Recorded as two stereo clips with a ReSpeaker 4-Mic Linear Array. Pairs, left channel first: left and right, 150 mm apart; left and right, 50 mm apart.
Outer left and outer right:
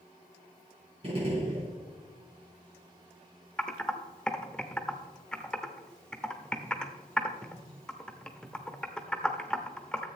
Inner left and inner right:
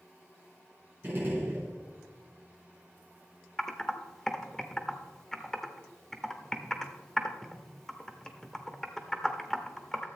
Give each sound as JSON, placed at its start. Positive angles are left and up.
{"t": 1.0, "sound": "a gunshot", "side_deg": -40, "distance_m": 4.0}
{"t": 3.6, "sound": "typing on a keyboard", "side_deg": 5, "distance_m": 0.9}